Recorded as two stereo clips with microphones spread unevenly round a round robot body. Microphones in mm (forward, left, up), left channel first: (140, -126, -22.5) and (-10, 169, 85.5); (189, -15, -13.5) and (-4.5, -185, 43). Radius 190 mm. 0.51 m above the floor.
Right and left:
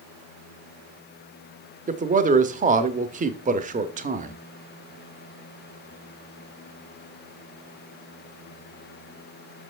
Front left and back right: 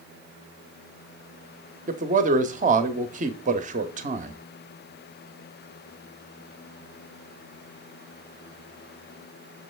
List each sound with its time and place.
1.9 s a man speaking: 165° right, 0.7 m